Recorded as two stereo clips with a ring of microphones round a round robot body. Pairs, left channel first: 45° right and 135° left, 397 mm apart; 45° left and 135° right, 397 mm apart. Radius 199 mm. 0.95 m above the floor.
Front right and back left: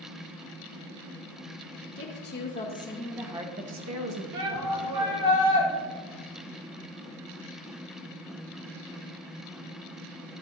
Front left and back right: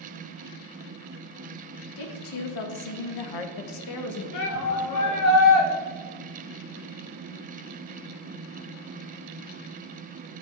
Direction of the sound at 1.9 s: 15° left.